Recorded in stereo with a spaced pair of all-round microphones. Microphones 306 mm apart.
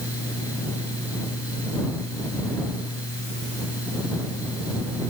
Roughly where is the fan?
Left.